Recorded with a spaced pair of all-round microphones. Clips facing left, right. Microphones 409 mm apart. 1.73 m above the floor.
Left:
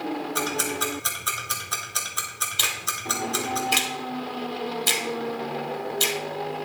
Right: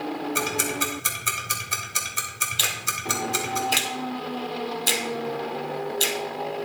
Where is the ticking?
40° right (ahead or behind), 1.4 m.